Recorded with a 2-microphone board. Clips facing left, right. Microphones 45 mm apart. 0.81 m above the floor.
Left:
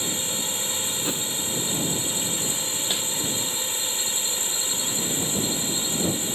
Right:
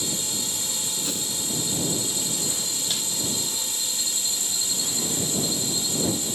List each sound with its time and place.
0.0 s a drone: 30° left (ahead or behind)
1.0 s a whoosh: 25° left (ahead or behind)
2.9 s crumpling: 25° left (ahead or behind)